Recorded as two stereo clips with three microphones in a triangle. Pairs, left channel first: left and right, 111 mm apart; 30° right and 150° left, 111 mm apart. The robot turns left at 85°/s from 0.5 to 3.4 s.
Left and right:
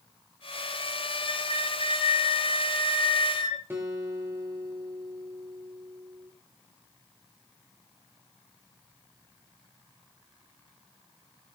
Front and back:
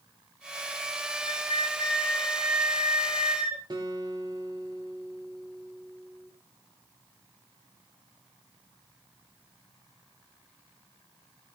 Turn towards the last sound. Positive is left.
turn(degrees=-160)